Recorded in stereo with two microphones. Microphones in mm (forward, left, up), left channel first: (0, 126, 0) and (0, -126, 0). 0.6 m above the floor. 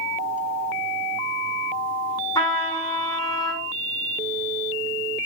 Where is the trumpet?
15° left (ahead or behind), 5.5 m.